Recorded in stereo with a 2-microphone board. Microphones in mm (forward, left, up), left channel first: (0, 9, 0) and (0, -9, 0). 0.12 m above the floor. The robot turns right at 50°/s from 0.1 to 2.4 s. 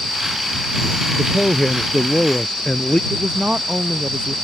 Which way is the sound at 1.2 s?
20° left.